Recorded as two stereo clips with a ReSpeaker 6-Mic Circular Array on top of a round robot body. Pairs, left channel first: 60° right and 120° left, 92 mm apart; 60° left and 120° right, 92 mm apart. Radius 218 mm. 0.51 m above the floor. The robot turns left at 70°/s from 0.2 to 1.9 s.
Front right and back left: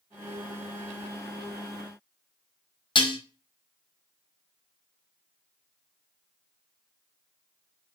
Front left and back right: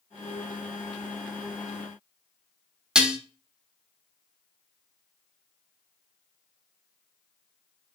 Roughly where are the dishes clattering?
Ahead right.